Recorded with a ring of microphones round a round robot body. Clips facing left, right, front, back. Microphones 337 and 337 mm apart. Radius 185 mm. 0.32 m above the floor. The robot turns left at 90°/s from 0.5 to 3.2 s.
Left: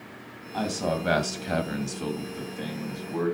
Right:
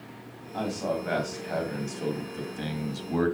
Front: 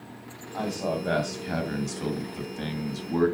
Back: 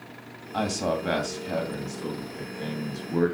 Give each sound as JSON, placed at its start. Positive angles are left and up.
{"t": 0.5, "sound": "a man speaking", "azimuth_deg": 155, "distance_m": 2.5}